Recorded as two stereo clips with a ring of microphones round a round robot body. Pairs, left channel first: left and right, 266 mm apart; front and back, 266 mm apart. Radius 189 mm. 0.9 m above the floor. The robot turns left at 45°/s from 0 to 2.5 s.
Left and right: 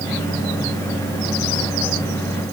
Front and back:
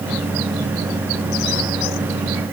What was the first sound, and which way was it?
Only background noise.